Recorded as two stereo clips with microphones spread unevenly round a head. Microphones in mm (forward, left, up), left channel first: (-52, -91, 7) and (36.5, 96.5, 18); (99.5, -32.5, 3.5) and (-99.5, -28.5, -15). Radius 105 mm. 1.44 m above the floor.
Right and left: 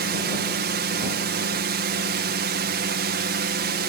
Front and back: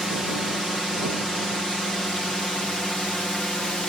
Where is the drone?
90° left; by 3.9 s 85° left.